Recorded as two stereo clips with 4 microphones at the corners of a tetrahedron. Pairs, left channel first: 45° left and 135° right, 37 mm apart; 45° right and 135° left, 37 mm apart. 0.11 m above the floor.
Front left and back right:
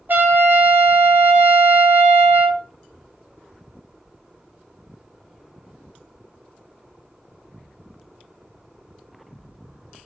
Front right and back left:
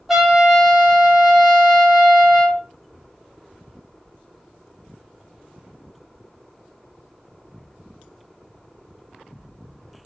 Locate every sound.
0.1 s a trumpet: 135° right, 1.0 m